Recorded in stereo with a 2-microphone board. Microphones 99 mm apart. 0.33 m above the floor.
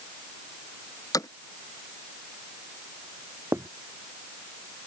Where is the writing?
25° right (ahead or behind).